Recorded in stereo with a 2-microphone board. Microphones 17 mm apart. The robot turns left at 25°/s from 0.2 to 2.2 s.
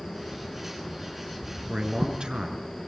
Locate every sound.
1.7 s a man speaking: 45° right (ahead or behind), 5.5 m; by 2.7 s 60° right (ahead or behind), 5.5 m